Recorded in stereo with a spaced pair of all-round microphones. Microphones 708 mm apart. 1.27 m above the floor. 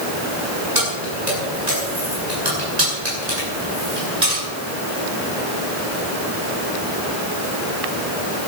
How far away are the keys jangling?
About 7.5 m.